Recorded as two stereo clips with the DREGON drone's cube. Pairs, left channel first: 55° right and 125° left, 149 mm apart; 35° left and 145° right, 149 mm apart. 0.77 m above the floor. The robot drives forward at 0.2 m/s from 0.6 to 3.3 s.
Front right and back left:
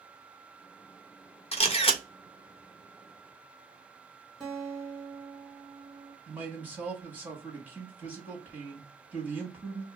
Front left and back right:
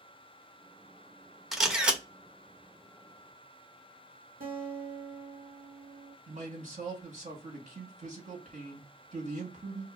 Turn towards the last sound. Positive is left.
turn(degrees=-160)